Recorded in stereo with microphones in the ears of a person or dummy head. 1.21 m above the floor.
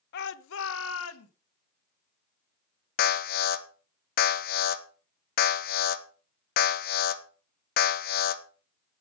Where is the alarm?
50° left (ahead or behind), 1.2 m.